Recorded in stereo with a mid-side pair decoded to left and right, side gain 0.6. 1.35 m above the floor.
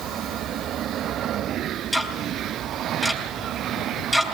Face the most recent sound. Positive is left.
turn(degrees=0)